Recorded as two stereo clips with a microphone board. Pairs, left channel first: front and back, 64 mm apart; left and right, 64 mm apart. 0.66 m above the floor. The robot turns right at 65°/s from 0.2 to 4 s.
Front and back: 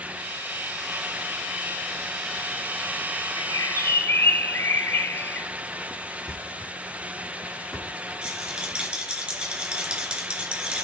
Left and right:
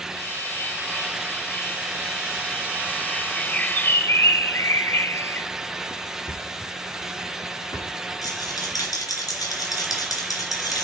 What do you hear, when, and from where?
3.4 s a bird: 5° left, 0.5 m; by 5.5 s 50° left, 0.5 m
6.3 s a thud: 85° left, 6 m
8.2 s a rattle: 100° left, 3 m